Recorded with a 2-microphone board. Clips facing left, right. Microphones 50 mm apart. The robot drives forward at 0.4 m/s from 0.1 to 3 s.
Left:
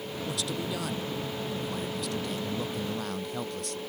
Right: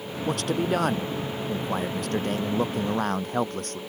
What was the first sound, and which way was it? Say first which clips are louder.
A man speaking: right 9 dB; 55° right (ahead or behind).